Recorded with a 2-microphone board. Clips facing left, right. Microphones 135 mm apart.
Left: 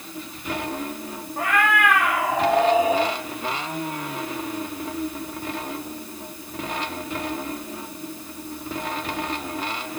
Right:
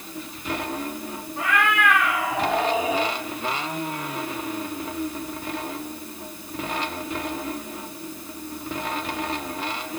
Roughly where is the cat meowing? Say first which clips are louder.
Left 2 dB; left.